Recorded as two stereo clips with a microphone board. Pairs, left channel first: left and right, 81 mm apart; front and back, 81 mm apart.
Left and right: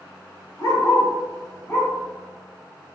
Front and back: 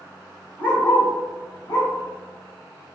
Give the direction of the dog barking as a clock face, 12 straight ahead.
10 o'clock.